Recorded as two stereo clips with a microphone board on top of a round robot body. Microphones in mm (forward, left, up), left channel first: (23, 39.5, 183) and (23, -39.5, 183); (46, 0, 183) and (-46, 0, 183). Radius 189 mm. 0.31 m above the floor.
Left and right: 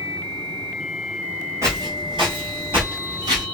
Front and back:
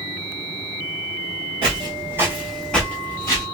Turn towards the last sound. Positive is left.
turn(degrees=-60)